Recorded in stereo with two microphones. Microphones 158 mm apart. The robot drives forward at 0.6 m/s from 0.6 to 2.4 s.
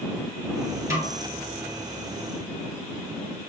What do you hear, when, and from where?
0.9 s a snare drum: 15° right (ahead or behind), 1.2 m